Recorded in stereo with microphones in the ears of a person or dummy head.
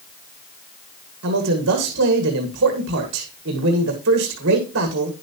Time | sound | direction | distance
1.2 | a man speaking | 60° right (ahead or behind) | 1.7 m